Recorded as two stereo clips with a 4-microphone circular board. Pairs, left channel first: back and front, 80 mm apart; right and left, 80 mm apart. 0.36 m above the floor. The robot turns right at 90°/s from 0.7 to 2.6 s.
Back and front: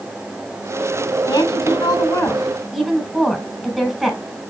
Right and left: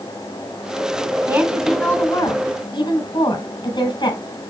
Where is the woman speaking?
155° left, 3.5 m; by 4.2 s 85° right, 3.5 m.